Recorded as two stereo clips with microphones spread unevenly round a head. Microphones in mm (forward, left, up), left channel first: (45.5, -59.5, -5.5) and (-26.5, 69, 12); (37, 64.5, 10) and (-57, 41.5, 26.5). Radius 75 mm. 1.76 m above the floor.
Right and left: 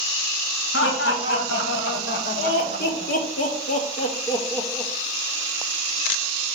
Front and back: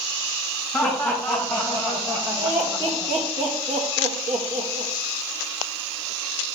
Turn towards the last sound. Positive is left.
turn(degrees=-150)